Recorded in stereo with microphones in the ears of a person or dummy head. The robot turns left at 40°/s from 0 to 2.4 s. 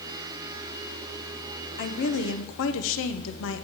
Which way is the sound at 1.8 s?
45° left (ahead or behind).